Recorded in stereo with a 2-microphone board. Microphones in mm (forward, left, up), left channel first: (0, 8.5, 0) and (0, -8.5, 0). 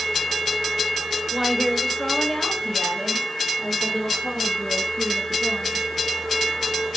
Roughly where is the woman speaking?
Centre.